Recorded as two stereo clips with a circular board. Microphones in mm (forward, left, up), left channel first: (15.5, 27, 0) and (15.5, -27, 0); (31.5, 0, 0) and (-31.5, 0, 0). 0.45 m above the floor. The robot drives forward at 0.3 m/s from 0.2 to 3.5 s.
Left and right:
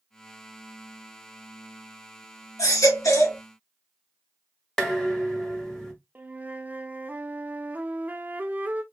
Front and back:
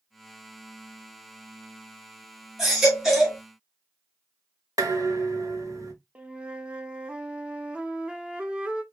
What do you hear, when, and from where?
2.6 s a baby crying: 95° left, 2.5 m; by 3.4 s 100° left, 2.5 m
4.8 s dishes clattering: 170° left, 1.4 m
6.2 s a flute: 120° right, 0.7 m